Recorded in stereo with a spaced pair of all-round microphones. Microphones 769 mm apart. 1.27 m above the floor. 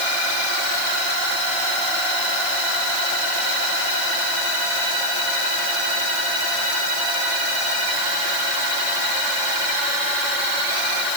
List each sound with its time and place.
Only background noise.